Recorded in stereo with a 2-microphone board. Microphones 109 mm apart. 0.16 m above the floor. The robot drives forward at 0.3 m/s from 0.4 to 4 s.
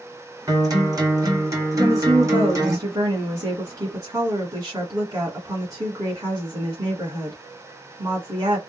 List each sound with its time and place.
0.5 s a guitar: 35° right (ahead or behind), 1.8 m; by 2.8 s 30° right (ahead or behind), 2 m
1.8 s a woman speaking: 35° right (ahead or behind), 1.5 m; by 8.6 s 30° right (ahead or behind), 1.6 m